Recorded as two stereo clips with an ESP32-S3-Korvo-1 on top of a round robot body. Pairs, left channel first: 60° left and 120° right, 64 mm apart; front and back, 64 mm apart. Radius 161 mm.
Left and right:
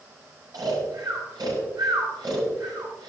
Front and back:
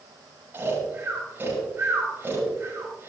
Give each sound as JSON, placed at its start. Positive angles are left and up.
{"t": 0.5, "sound": "snoring", "azimuth_deg": -120, "distance_m": 6.0}